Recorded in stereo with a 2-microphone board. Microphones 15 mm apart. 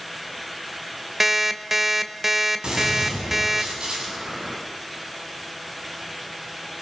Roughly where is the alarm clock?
Right.